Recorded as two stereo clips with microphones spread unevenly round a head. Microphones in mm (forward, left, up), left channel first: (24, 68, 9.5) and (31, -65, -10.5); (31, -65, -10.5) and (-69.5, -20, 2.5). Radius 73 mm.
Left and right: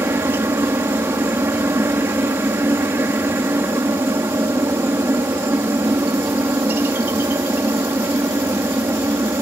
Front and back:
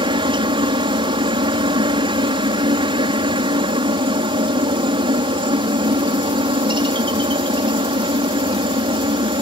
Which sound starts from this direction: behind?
A helicopter, at 0.0 s.